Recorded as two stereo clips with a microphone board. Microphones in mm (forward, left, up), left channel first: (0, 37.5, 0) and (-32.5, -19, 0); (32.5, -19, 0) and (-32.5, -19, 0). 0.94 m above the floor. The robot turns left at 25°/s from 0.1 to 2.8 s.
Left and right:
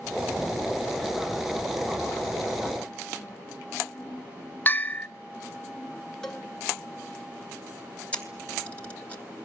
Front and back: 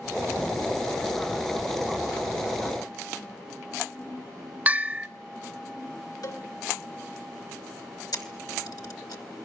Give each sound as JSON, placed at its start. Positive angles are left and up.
{"t": 4.7, "sound": "a bell", "azimuth_deg": 120, "distance_m": 1.0}
{"t": 6.2, "sound": "a cowbell", "azimuth_deg": -20, "distance_m": 3.5}
{"t": 8.1, "sound": "a camera shutter", "azimuth_deg": -10, "distance_m": 3.0}